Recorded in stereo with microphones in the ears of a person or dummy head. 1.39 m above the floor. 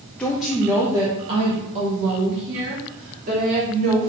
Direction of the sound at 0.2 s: 10° left (ahead or behind).